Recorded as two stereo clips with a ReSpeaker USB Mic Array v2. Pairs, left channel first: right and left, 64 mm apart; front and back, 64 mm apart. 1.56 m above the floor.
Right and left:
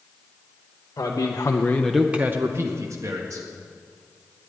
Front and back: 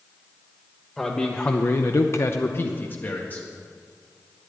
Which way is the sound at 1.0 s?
80° right.